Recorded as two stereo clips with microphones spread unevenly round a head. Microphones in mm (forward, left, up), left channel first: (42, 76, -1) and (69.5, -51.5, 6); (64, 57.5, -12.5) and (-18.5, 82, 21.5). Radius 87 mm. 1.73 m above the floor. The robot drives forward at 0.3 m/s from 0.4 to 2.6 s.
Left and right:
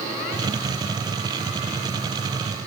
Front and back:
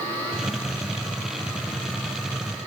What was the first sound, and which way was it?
Only background noise.